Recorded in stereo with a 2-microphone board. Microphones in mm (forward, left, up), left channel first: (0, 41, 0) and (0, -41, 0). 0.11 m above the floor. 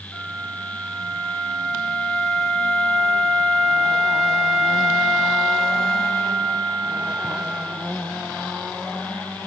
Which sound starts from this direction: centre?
A flute, at 0.1 s.